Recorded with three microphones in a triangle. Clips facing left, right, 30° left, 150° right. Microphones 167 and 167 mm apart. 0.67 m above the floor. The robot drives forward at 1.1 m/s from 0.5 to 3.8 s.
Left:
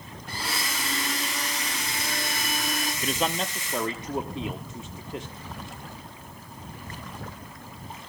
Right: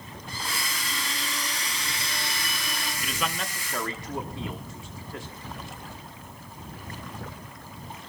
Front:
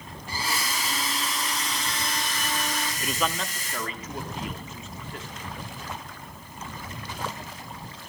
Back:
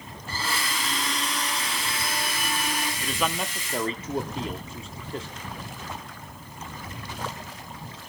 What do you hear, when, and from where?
0.3 s a blender: 105° left, 4.5 m; by 2.9 s 135° left, 5.5 m
3.0 s a man speaking: 95° left, 0.6 m; by 5.3 s 155° left, 1.1 m